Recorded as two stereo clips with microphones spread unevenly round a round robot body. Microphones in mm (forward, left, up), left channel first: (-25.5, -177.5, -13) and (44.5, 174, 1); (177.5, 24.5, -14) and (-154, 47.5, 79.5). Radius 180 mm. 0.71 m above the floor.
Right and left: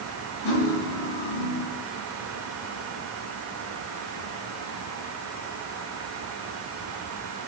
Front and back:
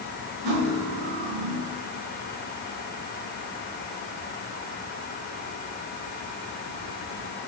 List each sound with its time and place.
0.4 s cutlery clinking: 155° right, 6 m